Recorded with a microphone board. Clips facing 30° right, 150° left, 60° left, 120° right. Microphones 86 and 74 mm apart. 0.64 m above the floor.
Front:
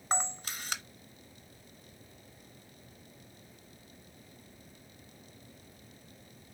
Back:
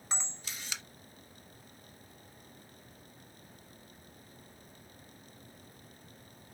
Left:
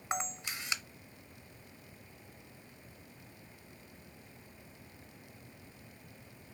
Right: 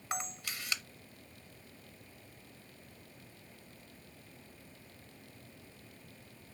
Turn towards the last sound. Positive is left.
turn(degrees=-5)